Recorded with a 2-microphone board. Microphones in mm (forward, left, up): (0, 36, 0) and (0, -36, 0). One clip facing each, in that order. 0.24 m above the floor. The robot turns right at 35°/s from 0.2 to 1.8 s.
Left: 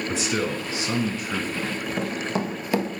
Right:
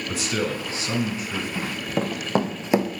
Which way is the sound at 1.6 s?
60° right (ahead or behind).